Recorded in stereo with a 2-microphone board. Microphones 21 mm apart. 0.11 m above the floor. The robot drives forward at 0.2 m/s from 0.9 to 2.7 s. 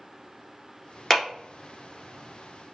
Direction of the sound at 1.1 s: 20° left (ahead or behind).